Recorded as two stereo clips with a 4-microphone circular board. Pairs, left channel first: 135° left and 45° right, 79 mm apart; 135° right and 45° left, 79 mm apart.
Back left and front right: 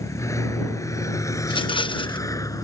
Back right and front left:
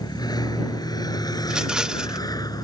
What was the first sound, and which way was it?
A vehicle, 170° right.